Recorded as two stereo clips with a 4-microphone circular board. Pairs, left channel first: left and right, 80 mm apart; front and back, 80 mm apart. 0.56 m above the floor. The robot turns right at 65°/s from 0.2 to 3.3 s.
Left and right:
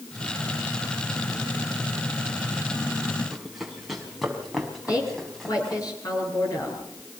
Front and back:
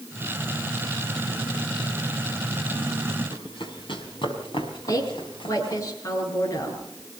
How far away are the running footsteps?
About 5 m.